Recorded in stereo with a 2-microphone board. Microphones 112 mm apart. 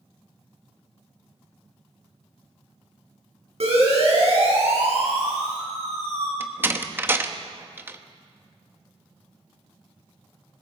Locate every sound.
3.6 s a siren: 65° right (ahead or behind), 8.5 m; by 6.3 s 75° right (ahead or behind), 7 m
6.4 s a door slam: 20° right (ahead or behind), 1.0 m